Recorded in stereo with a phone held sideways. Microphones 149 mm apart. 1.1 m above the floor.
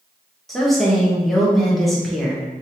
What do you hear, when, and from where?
0.5 s a woman speaking: centre (ahead or behind), 0.9 m